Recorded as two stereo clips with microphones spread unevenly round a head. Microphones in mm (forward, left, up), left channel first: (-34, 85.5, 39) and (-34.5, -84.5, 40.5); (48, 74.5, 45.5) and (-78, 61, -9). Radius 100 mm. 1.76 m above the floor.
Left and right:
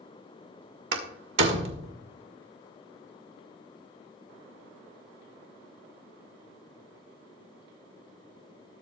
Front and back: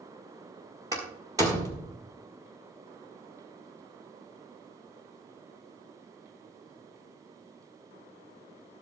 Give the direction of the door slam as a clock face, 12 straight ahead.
3 o'clock.